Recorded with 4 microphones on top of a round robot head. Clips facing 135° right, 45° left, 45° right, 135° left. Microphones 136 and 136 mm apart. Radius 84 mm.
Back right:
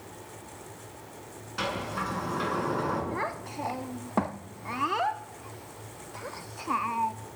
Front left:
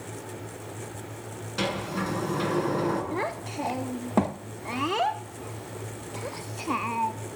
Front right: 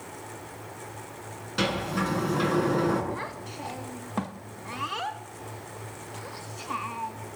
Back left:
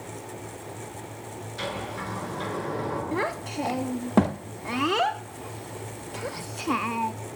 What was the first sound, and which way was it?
A sliding door, 20° right.